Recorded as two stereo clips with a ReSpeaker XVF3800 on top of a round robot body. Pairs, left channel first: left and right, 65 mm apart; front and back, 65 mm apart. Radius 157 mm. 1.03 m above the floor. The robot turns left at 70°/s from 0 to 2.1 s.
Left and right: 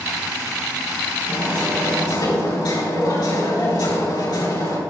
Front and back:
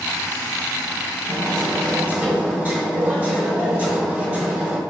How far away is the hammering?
About 4.5 m.